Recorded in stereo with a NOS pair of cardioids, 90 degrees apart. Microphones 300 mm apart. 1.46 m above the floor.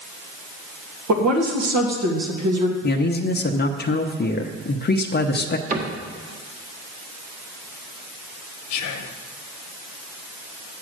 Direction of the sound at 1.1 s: 65° right.